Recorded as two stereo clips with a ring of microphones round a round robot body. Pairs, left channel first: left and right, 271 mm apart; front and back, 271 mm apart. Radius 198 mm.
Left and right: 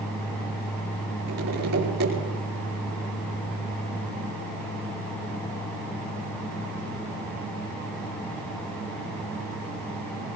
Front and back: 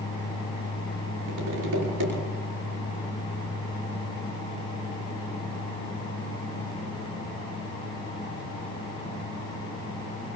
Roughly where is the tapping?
Behind right.